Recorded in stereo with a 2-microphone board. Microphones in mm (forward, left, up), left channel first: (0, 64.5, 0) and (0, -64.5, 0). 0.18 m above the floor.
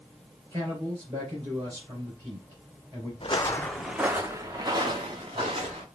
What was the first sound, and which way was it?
A man speaking, 30° right (ahead or behind).